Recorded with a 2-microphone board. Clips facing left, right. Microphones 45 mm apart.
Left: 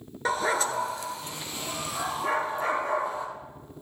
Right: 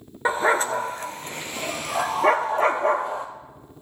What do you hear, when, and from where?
0.2 s a dog barking: 25° right (ahead or behind), 0.9 m; by 3.2 s 70° right (ahead or behind), 1.8 m